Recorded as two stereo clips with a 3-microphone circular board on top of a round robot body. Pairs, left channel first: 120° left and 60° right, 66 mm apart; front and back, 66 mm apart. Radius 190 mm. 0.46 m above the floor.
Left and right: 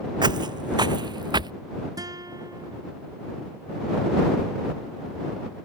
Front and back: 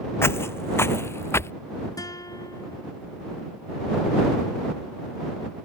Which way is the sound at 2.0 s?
30° right.